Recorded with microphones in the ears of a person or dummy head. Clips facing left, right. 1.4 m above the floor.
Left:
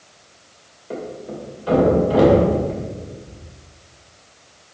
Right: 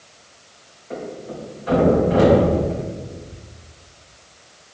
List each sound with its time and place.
0.9 s a thud: 55° left (ahead or behind), 2.5 m